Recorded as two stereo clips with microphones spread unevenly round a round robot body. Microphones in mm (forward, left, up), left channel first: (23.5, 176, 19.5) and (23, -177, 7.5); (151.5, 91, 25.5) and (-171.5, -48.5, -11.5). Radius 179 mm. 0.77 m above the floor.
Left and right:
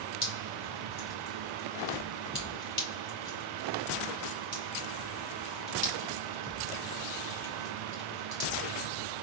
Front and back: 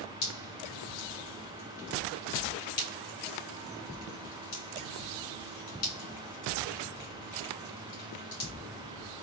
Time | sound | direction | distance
0.2 | dripping | 15° left | 3 m